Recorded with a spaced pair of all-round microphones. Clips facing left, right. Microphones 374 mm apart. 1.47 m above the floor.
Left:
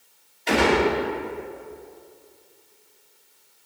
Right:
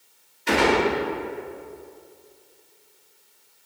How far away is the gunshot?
About 3 m.